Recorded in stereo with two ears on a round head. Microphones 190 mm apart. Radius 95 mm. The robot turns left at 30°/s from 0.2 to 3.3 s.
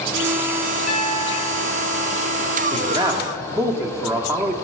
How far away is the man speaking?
About 1.3 m.